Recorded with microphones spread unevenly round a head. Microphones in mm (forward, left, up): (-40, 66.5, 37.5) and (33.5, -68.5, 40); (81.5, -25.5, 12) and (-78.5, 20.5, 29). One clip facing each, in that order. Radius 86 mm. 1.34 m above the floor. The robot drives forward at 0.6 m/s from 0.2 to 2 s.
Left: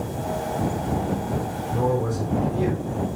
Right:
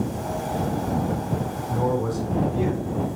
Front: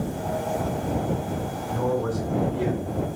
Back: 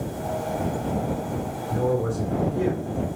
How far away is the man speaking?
About 2 m.